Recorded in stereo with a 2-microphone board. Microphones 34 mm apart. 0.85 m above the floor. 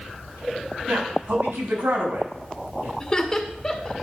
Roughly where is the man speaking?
Right.